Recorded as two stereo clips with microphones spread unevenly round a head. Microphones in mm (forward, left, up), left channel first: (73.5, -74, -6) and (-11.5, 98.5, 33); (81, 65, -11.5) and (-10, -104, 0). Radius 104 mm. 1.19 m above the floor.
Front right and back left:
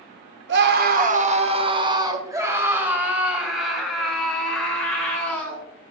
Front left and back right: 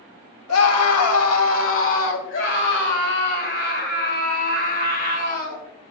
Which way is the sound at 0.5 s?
85° left.